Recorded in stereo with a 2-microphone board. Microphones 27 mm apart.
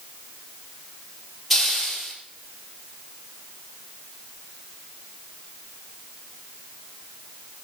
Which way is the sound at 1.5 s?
Centre (ahead or behind).